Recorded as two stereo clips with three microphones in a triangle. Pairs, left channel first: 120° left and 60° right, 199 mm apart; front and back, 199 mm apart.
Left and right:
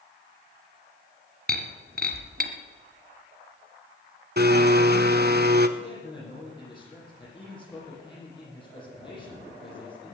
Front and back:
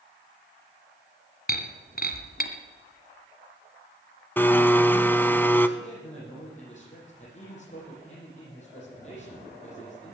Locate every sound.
1.5 s breaking glass: 30° right, 1.4 m
4.4 s a blender: 80° right, 0.8 m
5.8 s a man speaking: 55° left, 8.5 m